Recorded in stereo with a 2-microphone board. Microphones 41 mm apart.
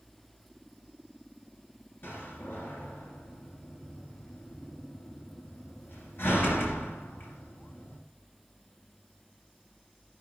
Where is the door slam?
65° left (ahead or behind), 2 m.